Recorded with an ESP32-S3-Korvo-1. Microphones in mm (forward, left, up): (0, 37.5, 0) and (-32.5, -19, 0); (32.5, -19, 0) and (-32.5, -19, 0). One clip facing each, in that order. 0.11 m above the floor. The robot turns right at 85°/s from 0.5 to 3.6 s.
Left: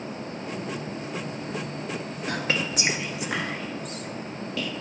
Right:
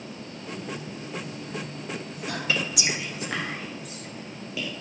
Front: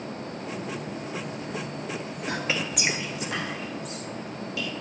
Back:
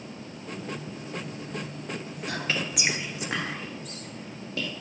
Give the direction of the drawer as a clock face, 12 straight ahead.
No drawer in this recording.